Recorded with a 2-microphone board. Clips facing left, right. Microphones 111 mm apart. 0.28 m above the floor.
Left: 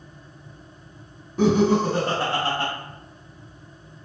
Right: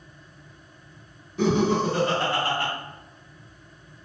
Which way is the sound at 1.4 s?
40° left (ahead or behind).